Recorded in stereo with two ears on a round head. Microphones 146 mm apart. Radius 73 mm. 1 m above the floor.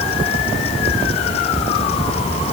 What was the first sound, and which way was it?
Only background noise.